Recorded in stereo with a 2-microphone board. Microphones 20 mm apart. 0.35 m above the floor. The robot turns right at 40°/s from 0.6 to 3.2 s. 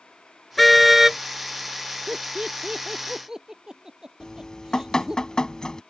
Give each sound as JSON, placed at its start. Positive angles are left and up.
{"t": 0.6, "sound": "a car horn", "side_deg": 0}
{"t": 2.1, "sound": "laughter", "side_deg": -65}
{"t": 4.2, "sound": "dripping", "side_deg": 40}